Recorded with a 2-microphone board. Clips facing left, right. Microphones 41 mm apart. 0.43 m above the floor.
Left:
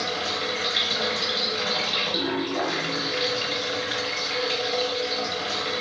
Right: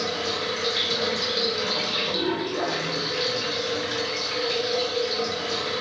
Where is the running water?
40° left (ahead or behind), 0.8 m.